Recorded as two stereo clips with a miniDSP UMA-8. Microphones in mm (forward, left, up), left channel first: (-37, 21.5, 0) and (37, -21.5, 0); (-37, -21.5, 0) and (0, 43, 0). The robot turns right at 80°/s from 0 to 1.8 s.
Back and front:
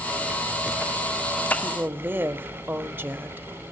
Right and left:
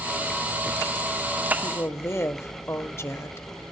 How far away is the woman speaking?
About 1.3 m.